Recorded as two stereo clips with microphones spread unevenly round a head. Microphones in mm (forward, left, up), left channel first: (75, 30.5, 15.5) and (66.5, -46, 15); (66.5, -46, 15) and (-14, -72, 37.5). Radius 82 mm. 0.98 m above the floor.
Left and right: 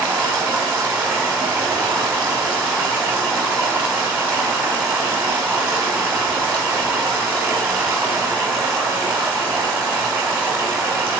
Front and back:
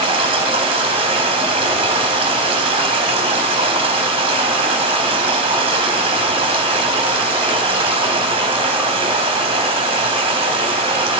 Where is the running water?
175° right, 1.1 m.